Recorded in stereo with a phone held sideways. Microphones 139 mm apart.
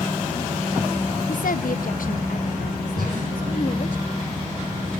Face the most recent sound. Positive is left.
turn(degrees=-80)